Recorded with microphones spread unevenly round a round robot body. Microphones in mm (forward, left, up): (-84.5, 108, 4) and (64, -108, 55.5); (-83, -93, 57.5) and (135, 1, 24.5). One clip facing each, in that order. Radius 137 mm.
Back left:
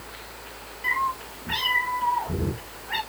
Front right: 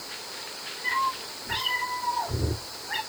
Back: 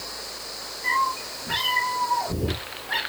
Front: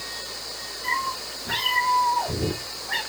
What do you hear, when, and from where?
0.8 s a cat meowing: 100° left, 5.5 m; by 3.0 s 90° left, 7 m